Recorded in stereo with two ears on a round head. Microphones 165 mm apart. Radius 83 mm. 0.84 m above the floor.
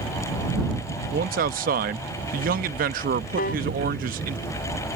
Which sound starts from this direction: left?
A piano, at 3.4 s.